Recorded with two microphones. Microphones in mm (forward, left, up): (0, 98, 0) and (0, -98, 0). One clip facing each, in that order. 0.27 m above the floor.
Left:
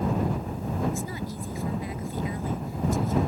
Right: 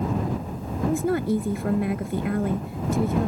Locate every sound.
0.9 s a woman speaking: 65° right (ahead or behind)